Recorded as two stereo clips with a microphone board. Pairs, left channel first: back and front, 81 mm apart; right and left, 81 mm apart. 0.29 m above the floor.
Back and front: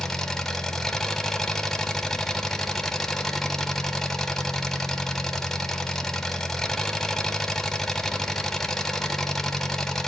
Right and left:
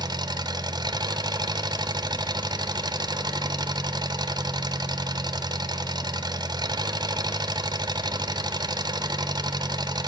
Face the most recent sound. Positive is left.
turn(degrees=95)